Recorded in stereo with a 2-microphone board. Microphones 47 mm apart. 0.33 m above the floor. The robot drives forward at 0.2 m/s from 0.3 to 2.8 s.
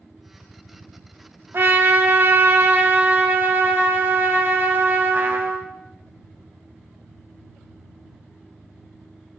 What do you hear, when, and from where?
1.5 s a trumpet: 55° right (ahead or behind), 0.7 m; by 5.7 s 45° right (ahead or behind), 0.8 m